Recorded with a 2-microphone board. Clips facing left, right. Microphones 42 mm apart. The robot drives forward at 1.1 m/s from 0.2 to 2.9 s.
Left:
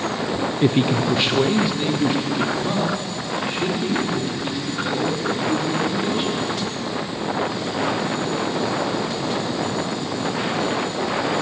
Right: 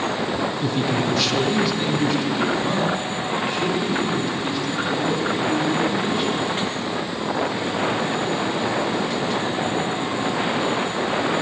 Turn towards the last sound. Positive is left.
turn(degrees=10)  # may be behind; listen again after turning